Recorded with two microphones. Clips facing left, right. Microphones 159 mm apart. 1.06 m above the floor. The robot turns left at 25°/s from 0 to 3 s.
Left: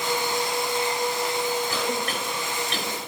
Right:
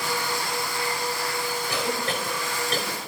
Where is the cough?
15° right (ahead or behind), 5.5 m; by 3.1 s 50° right (ahead or behind), 5.5 m.